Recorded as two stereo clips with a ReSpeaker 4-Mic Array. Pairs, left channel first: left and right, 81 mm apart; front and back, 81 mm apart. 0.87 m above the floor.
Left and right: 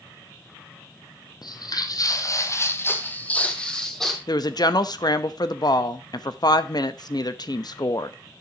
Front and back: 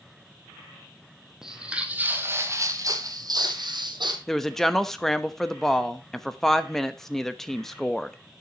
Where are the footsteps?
100° left, 1.6 m; by 4.2 s 175° left, 1.9 m.